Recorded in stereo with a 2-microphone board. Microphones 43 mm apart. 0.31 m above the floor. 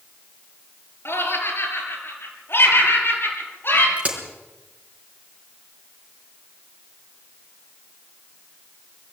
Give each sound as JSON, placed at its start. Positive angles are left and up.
{"t": 1.1, "sound": "laughter", "side_deg": 65, "distance_m": 6.5}
{"t": 4.0, "sound": "a crack", "side_deg": -30, "distance_m": 4.5}